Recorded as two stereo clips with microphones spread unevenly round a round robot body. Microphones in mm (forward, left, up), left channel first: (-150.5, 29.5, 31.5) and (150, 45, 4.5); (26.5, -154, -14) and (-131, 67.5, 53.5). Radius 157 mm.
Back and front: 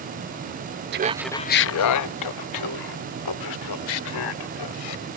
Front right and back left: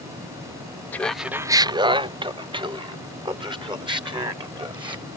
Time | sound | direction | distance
0.9 | laughter | 5° left | ?